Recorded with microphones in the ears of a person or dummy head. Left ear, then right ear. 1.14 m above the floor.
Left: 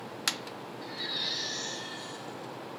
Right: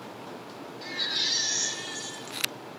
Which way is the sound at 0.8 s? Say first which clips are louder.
Right 6 dB; 80° right.